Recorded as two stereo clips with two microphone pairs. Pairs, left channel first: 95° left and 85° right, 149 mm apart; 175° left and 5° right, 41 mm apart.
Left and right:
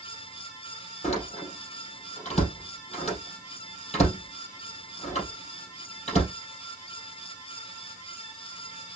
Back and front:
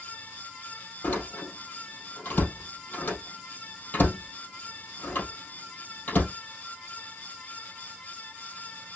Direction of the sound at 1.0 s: 135° left.